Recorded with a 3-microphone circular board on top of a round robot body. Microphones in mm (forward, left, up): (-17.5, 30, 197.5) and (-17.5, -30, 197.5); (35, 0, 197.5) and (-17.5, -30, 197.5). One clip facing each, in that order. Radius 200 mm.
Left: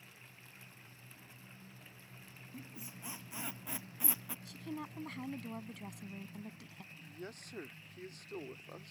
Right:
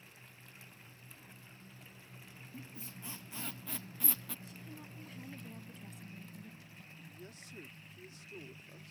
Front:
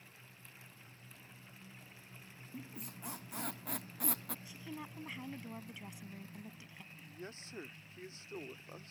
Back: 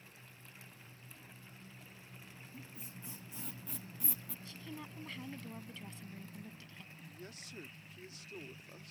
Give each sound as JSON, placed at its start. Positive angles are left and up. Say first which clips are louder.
{"t": 2.5, "sound": "a squeak", "louder": "even, front 5 dB", "azimuth_deg": 20}
{"t": 4.5, "sound": "a woman speaking", "louder": "left 7 dB, front 1 dB", "azimuth_deg": 105}
{"t": 6.9, "sound": "a man speaking", "louder": "left 6 dB, front 4 dB", "azimuth_deg": 85}